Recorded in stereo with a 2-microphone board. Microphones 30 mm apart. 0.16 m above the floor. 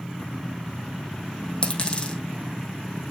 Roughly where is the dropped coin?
Left.